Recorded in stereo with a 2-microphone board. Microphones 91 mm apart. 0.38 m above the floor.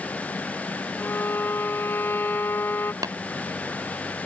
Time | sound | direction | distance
1.0 | a violin | 25° left (ahead or behind) | ?
3.0 | tapping | 45° right (ahead or behind) | ?